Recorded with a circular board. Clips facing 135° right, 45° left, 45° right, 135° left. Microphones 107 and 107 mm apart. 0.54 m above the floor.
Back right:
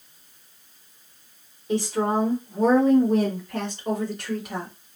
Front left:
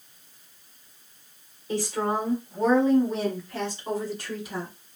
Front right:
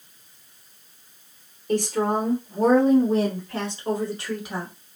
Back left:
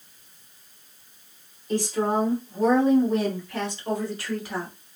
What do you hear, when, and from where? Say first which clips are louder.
1.7 s a woman speaking: back right 3 dB, front right 1 dB; 70° right, 1.6 m; by 4.7 s 120° right, 2 m